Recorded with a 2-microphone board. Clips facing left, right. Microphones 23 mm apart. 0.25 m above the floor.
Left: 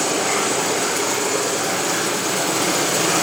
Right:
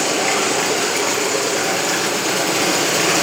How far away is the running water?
About 2.5 m.